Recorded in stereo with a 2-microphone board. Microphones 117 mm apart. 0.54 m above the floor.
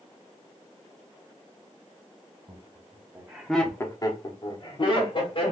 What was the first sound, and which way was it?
Laughter, 45° right (ahead or behind).